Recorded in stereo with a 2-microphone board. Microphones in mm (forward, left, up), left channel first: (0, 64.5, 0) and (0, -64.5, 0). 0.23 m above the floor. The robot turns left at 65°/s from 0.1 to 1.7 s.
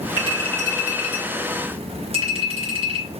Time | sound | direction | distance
0.2 | a clink | 35° left (ahead or behind) | 2.5 m